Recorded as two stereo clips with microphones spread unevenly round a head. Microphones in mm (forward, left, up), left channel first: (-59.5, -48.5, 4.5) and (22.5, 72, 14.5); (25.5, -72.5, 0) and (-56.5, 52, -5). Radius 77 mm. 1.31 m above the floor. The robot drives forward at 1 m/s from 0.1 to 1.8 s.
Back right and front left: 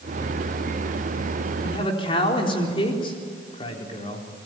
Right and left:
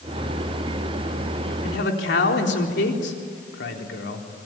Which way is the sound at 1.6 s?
60° right.